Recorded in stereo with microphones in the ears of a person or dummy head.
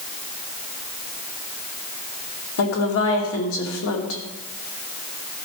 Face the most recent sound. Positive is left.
turn(degrees=80)